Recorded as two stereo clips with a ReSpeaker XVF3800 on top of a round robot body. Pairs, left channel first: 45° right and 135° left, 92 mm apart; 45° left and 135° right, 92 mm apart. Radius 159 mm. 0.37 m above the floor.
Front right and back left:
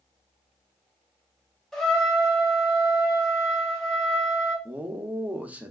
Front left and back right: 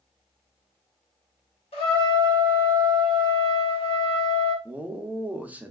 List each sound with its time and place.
1.7 s a trumpet: 40° left, 0.9 m
4.7 s a man speaking: straight behind, 0.8 m